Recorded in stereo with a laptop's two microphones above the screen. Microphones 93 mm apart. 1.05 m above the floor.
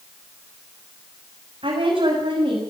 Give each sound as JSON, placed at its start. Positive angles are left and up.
{"t": 1.6, "sound": "a woman speaking", "side_deg": -85, "distance_m": 7.0}